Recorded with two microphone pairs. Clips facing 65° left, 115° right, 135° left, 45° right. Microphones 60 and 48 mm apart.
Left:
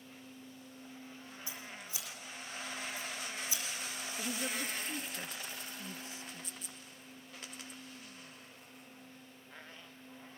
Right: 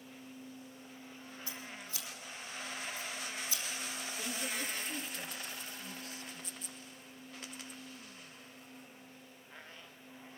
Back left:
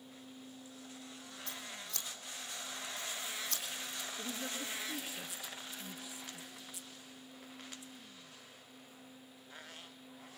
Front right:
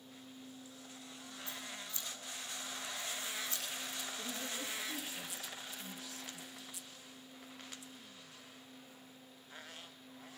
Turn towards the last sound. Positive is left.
turn(degrees=90)